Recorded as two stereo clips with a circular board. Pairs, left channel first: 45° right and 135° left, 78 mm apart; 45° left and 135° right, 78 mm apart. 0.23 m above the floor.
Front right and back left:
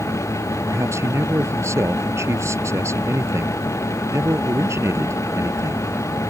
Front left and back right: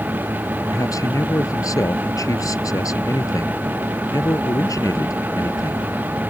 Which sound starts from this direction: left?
A man speaking, at 0.7 s.